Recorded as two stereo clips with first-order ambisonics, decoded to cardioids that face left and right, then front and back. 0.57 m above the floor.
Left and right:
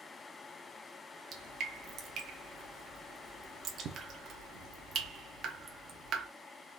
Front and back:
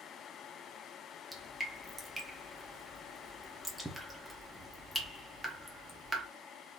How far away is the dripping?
About 0.9 m.